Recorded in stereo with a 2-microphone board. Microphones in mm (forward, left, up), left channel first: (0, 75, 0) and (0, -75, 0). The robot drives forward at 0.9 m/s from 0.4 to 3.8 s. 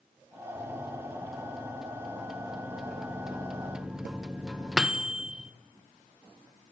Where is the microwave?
Centre (ahead or behind), 4 m; by 5.5 s 5° right (ahead or behind), 1.2 m.